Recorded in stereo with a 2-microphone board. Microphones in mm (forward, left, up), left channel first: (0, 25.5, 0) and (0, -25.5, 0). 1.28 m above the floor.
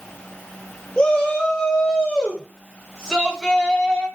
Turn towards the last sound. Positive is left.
turn(degrees=10)  # may be behind; listen again after turning